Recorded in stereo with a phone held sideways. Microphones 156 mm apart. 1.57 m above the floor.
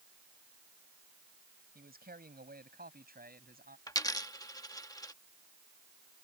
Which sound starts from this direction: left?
A dropped coin, at 3.9 s.